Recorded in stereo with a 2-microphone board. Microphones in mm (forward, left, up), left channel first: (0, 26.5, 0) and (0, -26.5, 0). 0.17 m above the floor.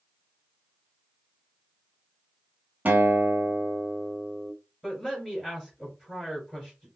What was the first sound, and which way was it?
A guitar, 30° right (ahead or behind).